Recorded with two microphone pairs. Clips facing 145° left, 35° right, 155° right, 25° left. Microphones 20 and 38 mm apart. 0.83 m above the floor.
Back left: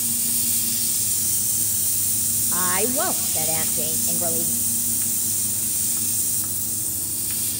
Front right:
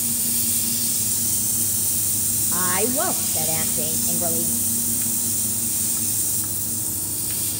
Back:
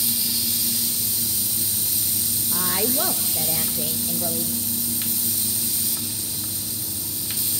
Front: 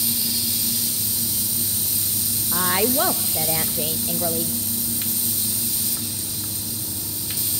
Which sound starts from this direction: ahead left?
A woman speaking, at 2.5 s.